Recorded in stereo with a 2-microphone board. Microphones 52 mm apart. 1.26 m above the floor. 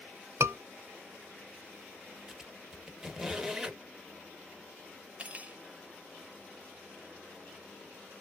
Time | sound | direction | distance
0.4 | a scream | 65° right (ahead or behind) | 0.7 m
2.3 | a squeak | 5° right (ahead or behind) | 0.8 m
5.2 | cutlery clinking | 30° right (ahead or behind) | 0.5 m